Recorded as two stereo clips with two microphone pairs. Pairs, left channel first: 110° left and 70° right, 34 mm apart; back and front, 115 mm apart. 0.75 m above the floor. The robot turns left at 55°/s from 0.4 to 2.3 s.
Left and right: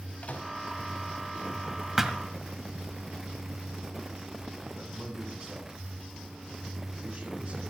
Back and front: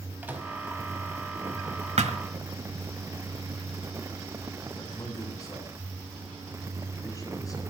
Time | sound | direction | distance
0.2 | a microwave | 75° left | 4.5 m
2.0 | a thud | 10° left | 1.5 m
4.8 | a man speaking | 120° right | 7 m